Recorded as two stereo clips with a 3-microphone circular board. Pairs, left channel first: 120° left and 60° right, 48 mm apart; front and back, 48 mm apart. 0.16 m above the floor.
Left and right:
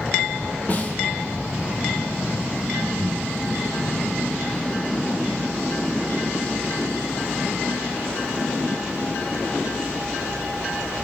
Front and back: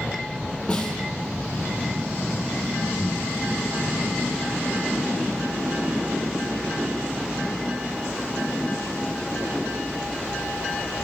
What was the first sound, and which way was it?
A snare drum, 65° left.